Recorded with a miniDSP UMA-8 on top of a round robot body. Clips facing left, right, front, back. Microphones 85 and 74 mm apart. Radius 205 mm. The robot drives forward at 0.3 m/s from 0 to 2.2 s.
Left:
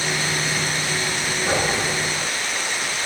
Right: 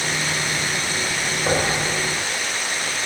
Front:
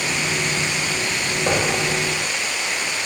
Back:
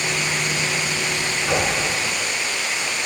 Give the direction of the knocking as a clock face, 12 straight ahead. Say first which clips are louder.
Right 1 dB, front 1 dB; 1 o'clock.